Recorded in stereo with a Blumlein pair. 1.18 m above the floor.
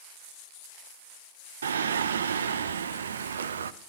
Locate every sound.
1.6 s singing: 70° right, 0.8 m